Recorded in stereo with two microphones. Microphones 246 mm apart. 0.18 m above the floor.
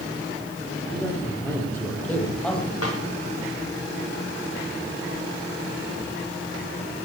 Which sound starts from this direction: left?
A snare drum, at 2.8 s.